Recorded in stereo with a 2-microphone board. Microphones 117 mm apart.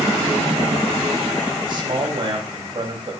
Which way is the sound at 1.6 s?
40° right (ahead or behind).